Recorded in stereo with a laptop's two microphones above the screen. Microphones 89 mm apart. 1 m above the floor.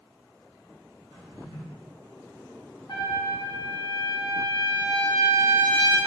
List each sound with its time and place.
1.1 s a drawer: 70° right (ahead or behind), 0.9 m
2.9 s a trumpet: 55° left (ahead or behind), 0.7 m